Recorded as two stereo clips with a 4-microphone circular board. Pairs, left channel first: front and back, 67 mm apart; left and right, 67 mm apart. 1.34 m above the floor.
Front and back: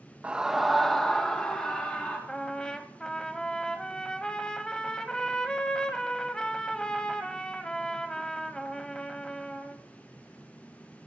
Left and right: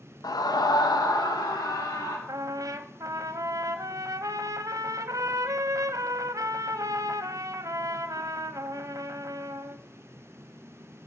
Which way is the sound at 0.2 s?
105° left.